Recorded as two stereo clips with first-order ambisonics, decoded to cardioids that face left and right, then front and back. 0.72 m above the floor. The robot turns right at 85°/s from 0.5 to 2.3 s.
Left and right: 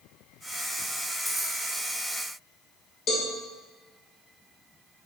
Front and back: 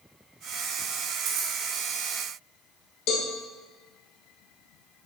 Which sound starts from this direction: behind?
Keys jangling, at 1.2 s.